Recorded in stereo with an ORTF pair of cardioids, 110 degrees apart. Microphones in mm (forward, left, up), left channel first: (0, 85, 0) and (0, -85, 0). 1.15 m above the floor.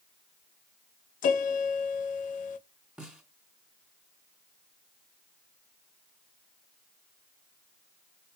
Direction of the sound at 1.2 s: 50° left.